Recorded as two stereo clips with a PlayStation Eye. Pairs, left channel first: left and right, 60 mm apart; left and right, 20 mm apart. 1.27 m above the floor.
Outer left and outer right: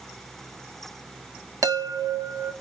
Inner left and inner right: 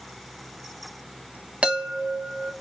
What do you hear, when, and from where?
1.6 s a chime: 75° right (ahead or behind), 1.3 m